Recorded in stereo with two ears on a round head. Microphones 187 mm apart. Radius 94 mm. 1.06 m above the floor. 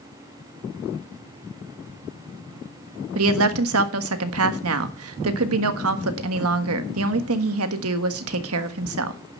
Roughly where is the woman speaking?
Right.